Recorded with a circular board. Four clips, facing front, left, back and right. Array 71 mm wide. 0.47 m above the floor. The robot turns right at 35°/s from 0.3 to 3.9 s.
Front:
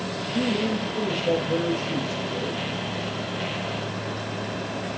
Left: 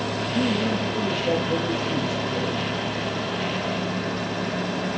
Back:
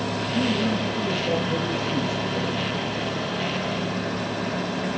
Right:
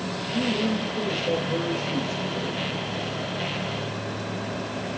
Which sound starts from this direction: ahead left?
A man speaking, at 0.3 s.